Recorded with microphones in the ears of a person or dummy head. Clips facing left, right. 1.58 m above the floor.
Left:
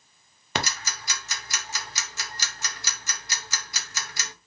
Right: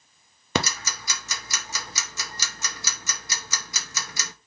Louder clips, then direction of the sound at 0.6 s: Right 4 dB; 70° right (ahead or behind).